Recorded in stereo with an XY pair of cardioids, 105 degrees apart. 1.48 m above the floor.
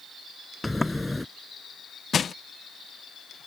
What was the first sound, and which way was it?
A sliding door, 10° left.